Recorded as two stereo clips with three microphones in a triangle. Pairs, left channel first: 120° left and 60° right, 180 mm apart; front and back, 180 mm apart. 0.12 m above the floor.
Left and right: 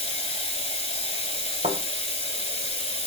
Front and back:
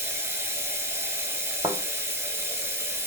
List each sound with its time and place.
0.0 s running water: 115° left, 1.3 m
1.6 s a thud: 105° right, 1.4 m